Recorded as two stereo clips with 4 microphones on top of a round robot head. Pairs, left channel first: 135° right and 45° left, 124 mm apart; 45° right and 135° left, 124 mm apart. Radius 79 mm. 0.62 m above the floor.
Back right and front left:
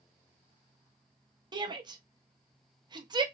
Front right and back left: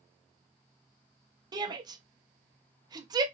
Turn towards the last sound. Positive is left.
turn(degrees=85)